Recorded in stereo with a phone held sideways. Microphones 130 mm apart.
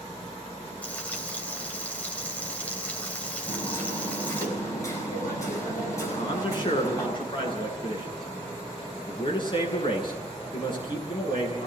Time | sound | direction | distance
0.8 | frying | 10° left (ahead or behind) | 3.5 m
3.5 | hammering | 25° left (ahead or behind) | 8.5 m
6.1 | a man speaking | 40° left (ahead or behind) | 10 m